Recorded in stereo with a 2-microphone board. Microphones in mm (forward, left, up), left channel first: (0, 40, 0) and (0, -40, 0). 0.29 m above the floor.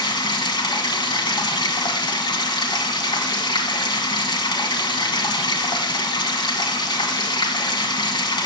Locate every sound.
0.0 s running water: 65° left (ahead or behind), 1.5 m